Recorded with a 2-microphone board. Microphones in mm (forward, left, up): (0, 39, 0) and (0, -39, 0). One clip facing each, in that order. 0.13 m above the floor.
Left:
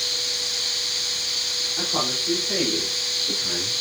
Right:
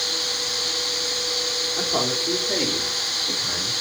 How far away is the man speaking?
About 4.5 m.